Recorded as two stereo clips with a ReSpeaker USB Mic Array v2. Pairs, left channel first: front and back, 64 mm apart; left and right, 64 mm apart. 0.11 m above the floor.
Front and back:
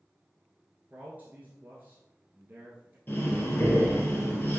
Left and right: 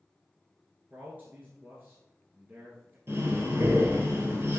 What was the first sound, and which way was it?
A man speaking, 130° right.